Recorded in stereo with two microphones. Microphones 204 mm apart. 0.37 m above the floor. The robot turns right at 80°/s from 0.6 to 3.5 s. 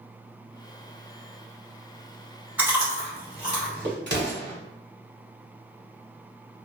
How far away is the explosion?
About 1.1 m.